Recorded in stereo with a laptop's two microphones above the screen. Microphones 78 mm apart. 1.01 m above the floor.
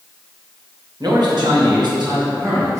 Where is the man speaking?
55° right (ahead or behind), 1.0 m; by 2.8 s 45° right (ahead or behind), 1.3 m.